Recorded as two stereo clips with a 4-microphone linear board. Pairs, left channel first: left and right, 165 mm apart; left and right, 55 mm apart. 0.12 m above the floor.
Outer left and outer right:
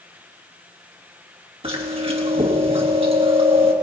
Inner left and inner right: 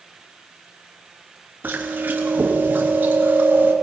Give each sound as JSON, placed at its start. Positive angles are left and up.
{"t": 1.6, "sound": "chewing", "side_deg": -35, "distance_m": 3.0}